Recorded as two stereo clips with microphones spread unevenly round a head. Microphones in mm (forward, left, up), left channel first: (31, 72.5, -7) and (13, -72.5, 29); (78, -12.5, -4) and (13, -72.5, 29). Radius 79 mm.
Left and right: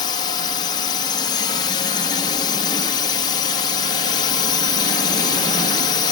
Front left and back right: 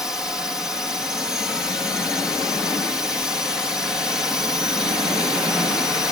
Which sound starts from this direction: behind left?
A drone, at 0.0 s.